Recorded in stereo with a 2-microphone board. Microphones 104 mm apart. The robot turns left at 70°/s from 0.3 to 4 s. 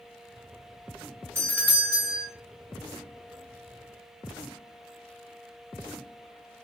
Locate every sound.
1.4 s a doorbell: 25° right (ahead or behind), 1.6 m; by 2.3 s centre (ahead or behind), 1.6 m